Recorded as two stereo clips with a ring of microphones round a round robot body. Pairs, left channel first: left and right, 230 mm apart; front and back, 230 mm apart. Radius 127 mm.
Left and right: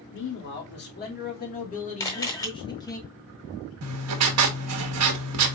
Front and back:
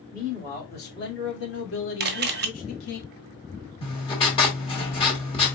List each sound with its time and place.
0.1 s a man speaking: 55° left, 2.5 m; by 3.0 s 15° left, 1.9 m
2.0 s a camera shutter: 160° left, 0.7 m
3.8 s writing: 70° right, 1.2 m